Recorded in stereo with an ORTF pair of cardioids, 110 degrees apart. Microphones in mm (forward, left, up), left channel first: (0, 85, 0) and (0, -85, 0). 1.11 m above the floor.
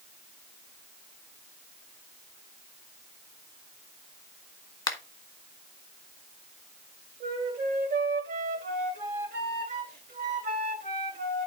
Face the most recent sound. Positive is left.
turn(degrees=-55)